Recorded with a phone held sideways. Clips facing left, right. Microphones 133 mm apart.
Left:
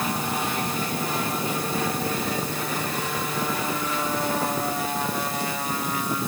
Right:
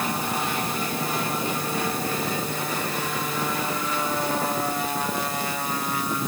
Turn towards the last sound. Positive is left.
No sound to turn to.